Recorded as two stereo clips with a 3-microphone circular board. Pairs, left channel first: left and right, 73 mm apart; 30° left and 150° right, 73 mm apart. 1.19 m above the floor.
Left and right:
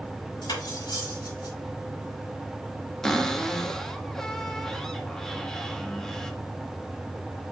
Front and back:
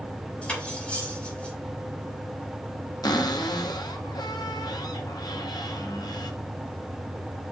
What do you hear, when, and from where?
0.4 s cutlery clinking: 105° left, 5 m
3.0 s a cupboard door: 5° left, 1.1 m